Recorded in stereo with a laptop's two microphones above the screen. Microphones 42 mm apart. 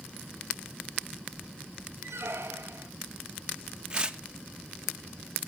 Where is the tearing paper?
20° right (ahead or behind), 1.1 m.